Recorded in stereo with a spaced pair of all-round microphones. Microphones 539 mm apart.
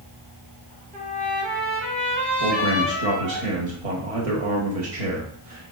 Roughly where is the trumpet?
Centre.